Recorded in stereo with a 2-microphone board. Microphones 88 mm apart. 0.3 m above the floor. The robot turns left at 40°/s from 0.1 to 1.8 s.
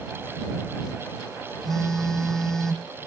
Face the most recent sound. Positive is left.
turn(degrees=5)  # may be behind; listen again after turning